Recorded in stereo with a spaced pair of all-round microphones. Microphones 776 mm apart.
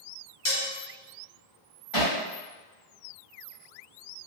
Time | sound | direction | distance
0.5 | dishes clattering | 20° left (ahead or behind) | 0.6 m
1.9 | hammering | 40° left (ahead or behind) | 1.4 m